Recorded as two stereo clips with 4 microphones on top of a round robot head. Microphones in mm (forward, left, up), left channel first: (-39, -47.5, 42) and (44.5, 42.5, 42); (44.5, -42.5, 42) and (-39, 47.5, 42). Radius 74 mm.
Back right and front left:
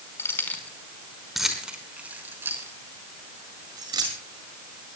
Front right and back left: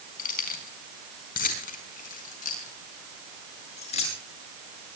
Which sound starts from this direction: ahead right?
Keys jangling, at 0.2 s.